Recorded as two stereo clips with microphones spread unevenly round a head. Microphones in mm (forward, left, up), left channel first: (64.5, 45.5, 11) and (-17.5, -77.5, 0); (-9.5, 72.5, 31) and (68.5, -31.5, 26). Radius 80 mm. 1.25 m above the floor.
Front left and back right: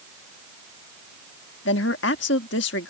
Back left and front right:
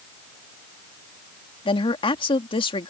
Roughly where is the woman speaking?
Left.